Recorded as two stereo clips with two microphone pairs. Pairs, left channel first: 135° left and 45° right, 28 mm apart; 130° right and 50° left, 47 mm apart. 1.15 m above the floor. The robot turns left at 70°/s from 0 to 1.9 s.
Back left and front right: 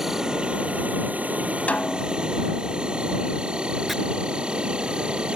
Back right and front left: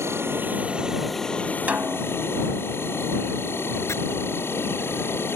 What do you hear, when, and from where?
0.0 s an insect: 35° left; by 5.4 s 95° right
1.7 s a snare drum: 110° left; by 2.2 s 95° left
3.9 s chopping: 135° right